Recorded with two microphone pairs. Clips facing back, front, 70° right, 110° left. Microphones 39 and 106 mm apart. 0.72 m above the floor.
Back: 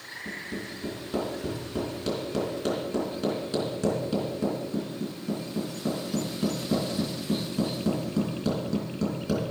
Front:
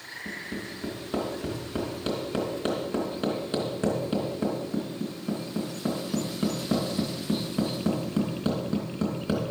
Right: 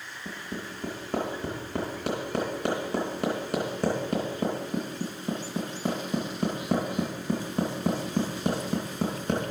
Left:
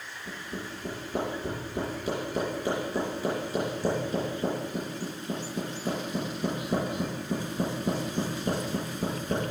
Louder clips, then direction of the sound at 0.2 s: Even, right 1 dB; 60° right.